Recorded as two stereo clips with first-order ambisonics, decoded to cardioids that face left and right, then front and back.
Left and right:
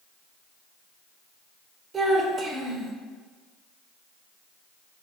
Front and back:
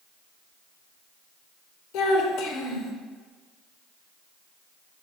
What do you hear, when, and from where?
1.9 s a child speaking: 20° right, 1.2 m